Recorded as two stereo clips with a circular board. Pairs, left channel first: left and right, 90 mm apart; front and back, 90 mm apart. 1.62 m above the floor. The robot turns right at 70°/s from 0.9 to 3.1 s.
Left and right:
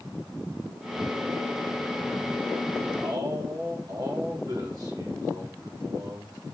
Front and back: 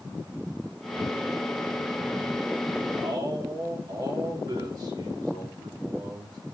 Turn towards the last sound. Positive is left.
turn(degrees=-140)